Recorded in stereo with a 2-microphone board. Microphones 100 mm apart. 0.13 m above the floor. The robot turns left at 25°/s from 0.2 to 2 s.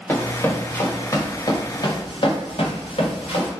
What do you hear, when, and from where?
0.1 s running footsteps: 20° left (ahead or behind), 1.0 m; by 3.5 s 80° left, 1.5 m